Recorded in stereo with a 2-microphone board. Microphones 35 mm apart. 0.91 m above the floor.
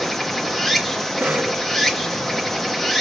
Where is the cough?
65° right (ahead or behind), 1.7 m.